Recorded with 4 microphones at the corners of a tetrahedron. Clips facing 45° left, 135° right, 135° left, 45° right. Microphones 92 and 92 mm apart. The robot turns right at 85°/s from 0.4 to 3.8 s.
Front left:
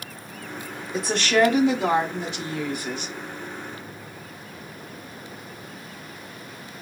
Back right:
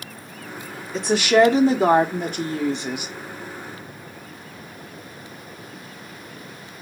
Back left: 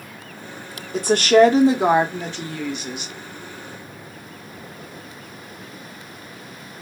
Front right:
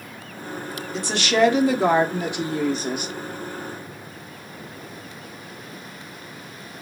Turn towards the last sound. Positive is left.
turn(degrees=5)